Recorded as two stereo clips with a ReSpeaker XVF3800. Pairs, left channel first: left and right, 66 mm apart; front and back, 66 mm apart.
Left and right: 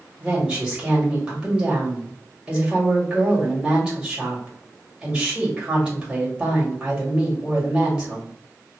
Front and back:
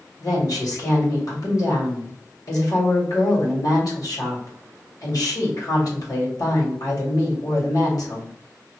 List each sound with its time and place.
0.2 s a woman speaking: 10° right, 1.7 m